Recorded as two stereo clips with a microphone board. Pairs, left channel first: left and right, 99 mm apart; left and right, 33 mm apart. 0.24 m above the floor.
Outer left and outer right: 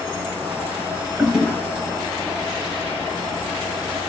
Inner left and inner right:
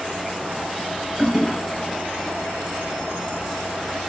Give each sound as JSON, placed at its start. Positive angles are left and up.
{"t": 1.2, "sound": "a toilet flushing", "side_deg": -10, "distance_m": 1.2}